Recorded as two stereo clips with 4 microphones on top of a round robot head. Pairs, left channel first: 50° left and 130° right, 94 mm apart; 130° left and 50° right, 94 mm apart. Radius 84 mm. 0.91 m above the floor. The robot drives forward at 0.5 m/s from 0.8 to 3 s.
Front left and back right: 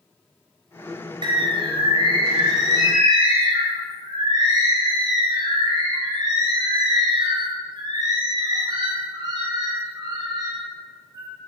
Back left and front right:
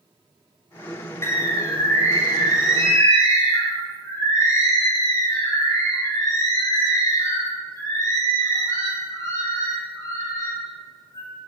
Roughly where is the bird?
Behind.